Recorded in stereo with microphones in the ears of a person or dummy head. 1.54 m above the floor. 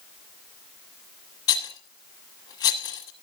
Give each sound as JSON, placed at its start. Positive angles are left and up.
{"t": 1.5, "sound": "a rattle", "side_deg": 20, "distance_m": 1.3}